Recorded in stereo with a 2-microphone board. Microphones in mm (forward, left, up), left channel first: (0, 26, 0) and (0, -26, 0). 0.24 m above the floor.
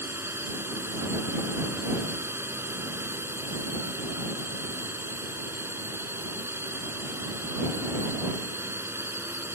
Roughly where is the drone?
Right.